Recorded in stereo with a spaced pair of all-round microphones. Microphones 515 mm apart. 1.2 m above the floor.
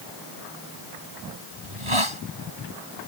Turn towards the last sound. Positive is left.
turn(degrees=-70)  # may be behind; listen again after turning